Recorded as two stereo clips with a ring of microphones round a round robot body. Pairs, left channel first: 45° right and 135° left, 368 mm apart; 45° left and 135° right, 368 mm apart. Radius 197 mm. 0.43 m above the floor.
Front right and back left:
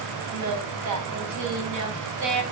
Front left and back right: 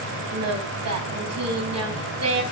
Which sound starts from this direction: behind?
Singing, at 0.3 s.